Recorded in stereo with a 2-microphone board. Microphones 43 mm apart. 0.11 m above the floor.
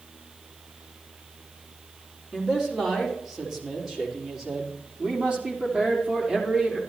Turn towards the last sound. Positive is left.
turn(degrees=-20)  # may be behind; listen again after turning